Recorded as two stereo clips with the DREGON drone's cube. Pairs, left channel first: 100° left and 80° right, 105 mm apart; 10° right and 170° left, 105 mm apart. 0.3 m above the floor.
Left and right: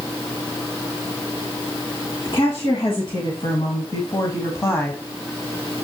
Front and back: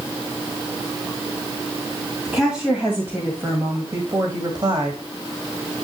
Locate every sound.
2.2 s a woman speaking: 85° left, 2.5 m; by 5.0 s 160° left, 1.8 m